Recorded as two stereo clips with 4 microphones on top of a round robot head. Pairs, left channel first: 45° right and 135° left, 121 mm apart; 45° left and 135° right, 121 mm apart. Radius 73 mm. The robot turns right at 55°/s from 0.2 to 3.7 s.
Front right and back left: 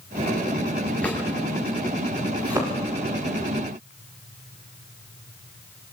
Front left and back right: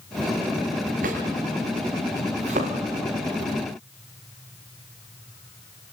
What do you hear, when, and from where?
1.0 s a drawer: 125° right, 5.5 m; by 1.2 s 115° right, 5.5 m
2.4 s a thud: 170° right, 8 m; by 2.8 s 150° right, 8 m